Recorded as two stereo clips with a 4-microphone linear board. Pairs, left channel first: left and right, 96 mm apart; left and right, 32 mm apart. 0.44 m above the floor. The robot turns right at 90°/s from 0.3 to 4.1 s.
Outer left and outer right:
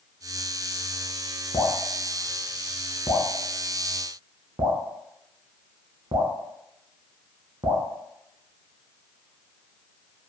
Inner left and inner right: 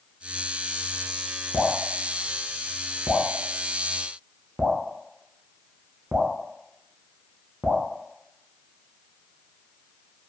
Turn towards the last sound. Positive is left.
turn(degrees=-60)  # may be behind; listen again after turning